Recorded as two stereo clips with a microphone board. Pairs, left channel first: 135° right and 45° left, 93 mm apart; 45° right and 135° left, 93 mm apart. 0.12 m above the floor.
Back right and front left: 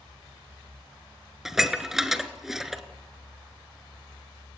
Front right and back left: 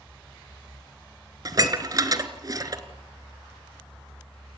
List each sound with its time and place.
1.4 s dishes clattering: 130° left, 1.2 m